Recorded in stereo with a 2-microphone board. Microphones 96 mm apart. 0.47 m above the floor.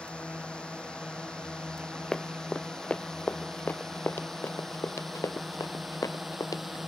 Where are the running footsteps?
5° left (ahead or behind); by 6.6 s 35° left (ahead or behind).